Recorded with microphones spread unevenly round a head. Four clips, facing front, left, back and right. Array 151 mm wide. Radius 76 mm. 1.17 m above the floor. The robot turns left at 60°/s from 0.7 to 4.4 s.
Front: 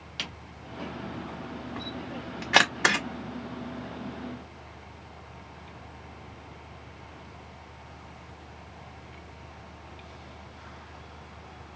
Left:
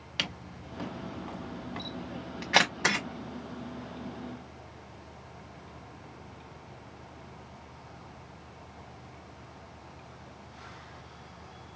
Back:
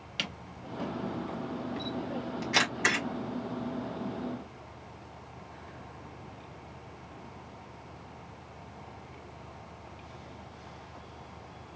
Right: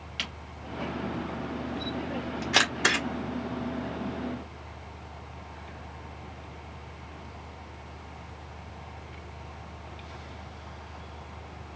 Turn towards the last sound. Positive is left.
turn(degrees=-95)